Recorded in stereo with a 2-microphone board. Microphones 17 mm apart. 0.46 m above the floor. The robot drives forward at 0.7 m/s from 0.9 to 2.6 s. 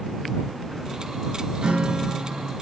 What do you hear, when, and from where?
1.6 s a guitar: 80° right, 3.5 m; by 2.5 s 75° right (ahead or behind), 4 m